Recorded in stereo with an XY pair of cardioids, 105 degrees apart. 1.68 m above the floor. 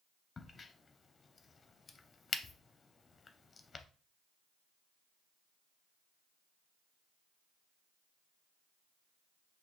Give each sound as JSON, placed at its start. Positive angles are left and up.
{"t": 0.4, "sound": "a crack", "azimuth_deg": 35, "distance_m": 0.5}